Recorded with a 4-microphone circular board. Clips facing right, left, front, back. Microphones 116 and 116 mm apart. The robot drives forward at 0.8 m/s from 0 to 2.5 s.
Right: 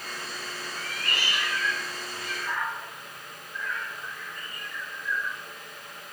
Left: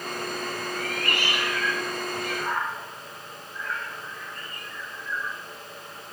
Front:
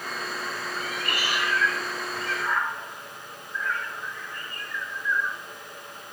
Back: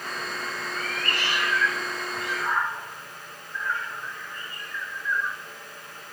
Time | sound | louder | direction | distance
0.8 | a cat meowing | left 4 dB, back 1 dB | 70° left | 1.9 m